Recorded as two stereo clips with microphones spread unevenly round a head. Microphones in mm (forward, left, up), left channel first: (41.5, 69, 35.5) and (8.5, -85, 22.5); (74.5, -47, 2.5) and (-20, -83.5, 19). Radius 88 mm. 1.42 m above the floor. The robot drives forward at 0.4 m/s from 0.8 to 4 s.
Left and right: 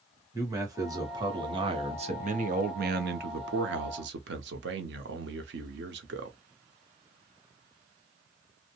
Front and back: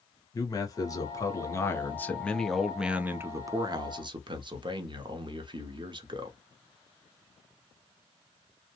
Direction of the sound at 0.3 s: 35° right.